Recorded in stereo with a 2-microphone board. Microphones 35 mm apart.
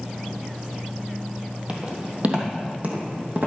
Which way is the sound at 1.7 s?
40° right (ahead or behind).